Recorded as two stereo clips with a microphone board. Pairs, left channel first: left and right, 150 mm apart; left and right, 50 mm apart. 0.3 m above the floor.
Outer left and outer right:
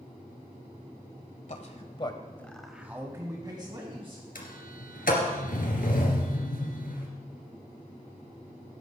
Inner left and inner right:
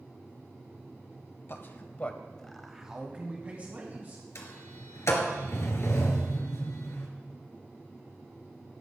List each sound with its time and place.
1.5 s a man speaking: 50° left (ahead or behind), 1.4 m; by 4.2 s 35° right (ahead or behind), 2.5 m
4.3 s a sliding door: 70° left (ahead or behind), 2.5 m